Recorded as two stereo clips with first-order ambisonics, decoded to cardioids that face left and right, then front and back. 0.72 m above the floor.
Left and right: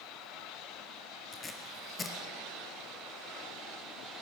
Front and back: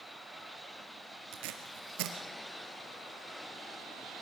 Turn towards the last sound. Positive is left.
turn(degrees=170)